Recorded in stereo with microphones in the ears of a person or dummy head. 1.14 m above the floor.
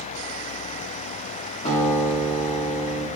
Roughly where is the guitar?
Left.